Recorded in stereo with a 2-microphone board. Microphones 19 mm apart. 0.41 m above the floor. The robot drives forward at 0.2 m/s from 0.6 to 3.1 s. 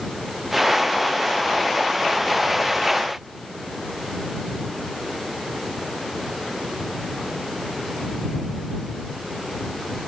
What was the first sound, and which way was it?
Only background noise.